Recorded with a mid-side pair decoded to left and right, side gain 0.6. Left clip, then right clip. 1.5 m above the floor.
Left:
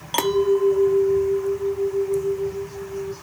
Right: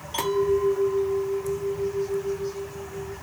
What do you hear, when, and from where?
0.1 s a clink: 55° left, 1.4 m